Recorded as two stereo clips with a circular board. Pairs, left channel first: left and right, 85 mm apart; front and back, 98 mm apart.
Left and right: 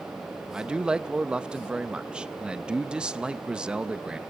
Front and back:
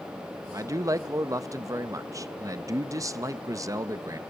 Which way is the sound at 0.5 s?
160° right.